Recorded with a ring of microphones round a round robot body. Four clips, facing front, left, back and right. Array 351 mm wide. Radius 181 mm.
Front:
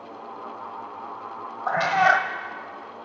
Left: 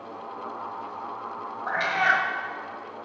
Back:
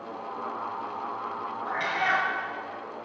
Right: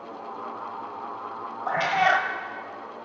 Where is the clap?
No clap in this recording.